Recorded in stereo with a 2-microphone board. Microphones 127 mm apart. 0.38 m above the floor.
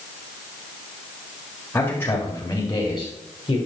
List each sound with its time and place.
1.7 s a man speaking: 15° left (ahead or behind), 1.7 m; by 3.6 s 40° left (ahead or behind), 2 m